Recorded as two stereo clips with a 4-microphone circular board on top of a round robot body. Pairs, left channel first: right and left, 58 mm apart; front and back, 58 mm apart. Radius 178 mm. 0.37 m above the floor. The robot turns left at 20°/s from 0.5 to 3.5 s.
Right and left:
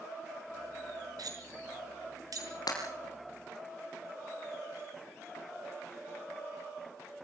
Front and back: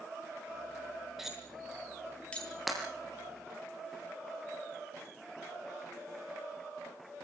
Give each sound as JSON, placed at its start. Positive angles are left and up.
{"t": 1.2, "sound": "cutlery clinking", "azimuth_deg": 95, "distance_m": 6.0}
{"t": 2.7, "sound": "breaking glass", "azimuth_deg": -90, "distance_m": 4.5}